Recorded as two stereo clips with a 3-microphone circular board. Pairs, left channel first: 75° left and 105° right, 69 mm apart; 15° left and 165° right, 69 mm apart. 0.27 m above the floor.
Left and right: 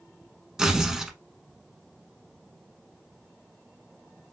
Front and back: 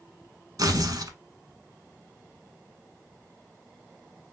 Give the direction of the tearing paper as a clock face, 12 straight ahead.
6 o'clock.